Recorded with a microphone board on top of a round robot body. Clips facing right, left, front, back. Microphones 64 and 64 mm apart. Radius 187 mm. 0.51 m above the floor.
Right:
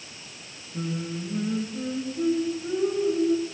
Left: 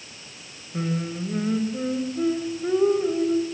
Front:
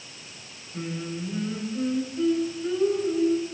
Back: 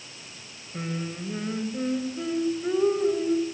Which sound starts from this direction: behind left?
Singing, at 0.7 s.